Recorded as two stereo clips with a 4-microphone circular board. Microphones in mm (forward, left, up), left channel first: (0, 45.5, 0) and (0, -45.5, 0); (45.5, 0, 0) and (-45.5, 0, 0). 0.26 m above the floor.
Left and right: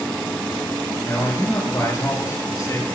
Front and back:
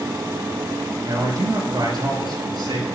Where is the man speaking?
140° left, 5 m.